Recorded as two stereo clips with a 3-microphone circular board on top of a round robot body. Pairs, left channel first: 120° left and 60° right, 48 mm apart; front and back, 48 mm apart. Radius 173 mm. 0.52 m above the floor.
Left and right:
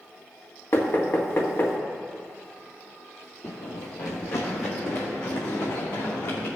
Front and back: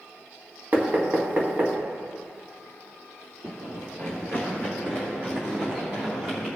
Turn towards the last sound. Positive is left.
turn(degrees=125)